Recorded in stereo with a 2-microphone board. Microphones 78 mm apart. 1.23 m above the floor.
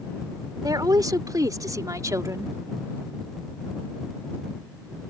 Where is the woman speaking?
50° right (ahead or behind); by 2.5 s 40° right (ahead or behind).